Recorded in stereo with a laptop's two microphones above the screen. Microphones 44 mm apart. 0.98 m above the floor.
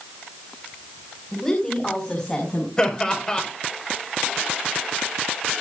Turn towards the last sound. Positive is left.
turn(degrees=20)  # may be behind; listen again after turning